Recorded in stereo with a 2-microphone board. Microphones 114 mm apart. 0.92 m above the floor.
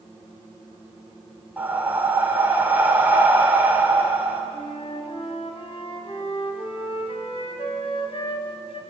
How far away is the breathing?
About 3 m.